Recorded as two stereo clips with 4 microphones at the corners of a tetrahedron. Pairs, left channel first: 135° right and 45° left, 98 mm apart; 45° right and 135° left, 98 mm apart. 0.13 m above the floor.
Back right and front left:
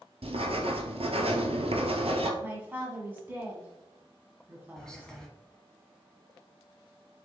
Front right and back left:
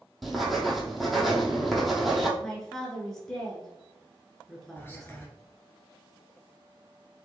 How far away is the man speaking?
About 1.4 m.